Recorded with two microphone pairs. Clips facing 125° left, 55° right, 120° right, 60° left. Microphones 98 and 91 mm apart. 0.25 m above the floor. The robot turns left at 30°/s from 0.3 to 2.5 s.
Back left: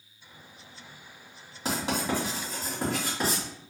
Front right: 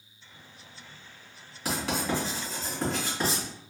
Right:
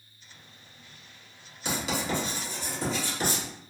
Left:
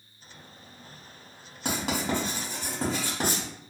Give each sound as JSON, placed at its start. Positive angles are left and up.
{"t": 1.6, "sound": "writing", "azimuth_deg": 70, "distance_m": 1.6}